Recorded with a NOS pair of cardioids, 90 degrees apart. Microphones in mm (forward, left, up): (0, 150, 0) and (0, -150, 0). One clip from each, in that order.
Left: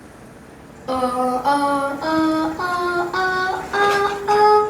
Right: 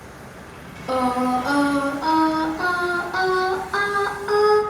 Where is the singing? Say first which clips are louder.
Left 1 dB; 20° left, 0.9 m.